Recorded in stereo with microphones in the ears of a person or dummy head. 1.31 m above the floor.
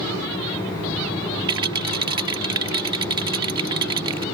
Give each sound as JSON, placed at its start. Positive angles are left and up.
{"t": 1.5, "sound": "a rattle", "side_deg": -30}